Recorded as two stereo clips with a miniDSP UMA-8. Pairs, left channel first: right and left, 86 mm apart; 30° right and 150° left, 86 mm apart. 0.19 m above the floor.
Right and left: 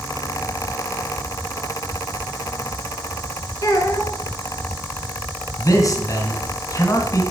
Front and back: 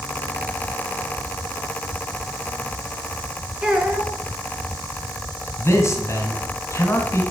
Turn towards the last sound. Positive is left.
turn(degrees=-70)